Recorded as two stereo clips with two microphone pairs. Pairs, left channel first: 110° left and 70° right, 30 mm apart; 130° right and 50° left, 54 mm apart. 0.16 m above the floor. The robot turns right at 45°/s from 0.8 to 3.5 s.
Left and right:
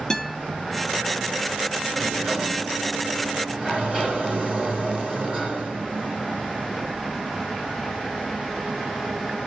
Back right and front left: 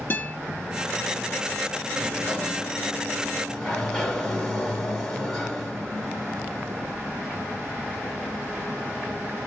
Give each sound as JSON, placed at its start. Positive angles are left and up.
{"t": 0.1, "sound": "a guitar", "azimuth_deg": 175, "distance_m": 0.8}
{"t": 1.9, "sound": "a sliding door", "azimuth_deg": -130, "distance_m": 1.8}